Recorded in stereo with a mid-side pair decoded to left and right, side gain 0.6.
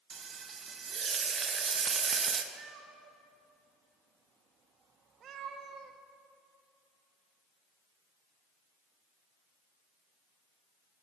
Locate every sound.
0.1 s frying: 35° right, 0.7 m
2.5 s a cat meowing: 50° right, 0.9 m